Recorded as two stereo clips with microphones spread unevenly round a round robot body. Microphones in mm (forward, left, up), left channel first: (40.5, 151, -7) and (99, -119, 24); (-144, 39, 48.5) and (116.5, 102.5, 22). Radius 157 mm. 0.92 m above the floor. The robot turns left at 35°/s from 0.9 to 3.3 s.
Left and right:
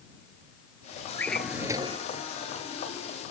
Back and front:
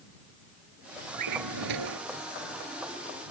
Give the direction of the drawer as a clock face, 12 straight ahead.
11 o'clock.